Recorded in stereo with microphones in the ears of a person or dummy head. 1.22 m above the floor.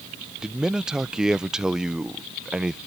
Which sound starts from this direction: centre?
A man speaking, at 0.4 s.